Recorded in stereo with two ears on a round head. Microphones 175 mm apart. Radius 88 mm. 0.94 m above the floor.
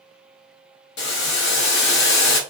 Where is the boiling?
55° left (ahead or behind), 0.7 m.